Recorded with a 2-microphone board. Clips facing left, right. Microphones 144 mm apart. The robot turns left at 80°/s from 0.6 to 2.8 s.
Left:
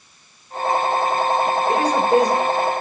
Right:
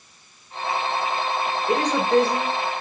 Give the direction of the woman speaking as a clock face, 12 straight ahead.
5 o'clock.